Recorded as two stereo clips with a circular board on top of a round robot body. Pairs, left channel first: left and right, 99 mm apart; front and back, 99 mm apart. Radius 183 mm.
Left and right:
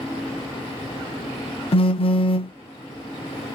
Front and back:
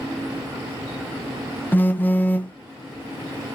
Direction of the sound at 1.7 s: 70° left.